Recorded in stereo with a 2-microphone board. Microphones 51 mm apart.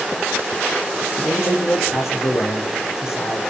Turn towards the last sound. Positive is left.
turn(degrees=65)  # may be behind; listen again after turning